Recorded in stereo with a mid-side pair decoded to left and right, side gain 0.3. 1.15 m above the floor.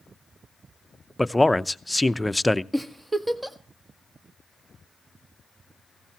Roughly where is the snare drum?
No snare drum in this recording.